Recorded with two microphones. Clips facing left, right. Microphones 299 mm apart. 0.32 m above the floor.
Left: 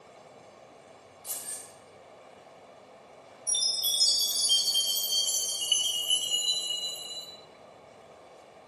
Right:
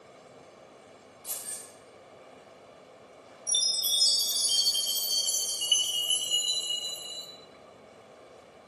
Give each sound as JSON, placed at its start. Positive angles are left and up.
{"t": 1.2, "sound": "keys jangling", "side_deg": -45, "distance_m": 1.4}
{"t": 3.5, "sound": "a chime", "side_deg": -50, "distance_m": 0.6}